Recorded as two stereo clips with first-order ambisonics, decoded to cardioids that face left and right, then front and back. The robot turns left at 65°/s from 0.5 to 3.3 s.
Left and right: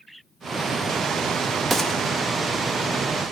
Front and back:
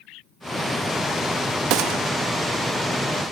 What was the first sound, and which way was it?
A gunshot, 175° right.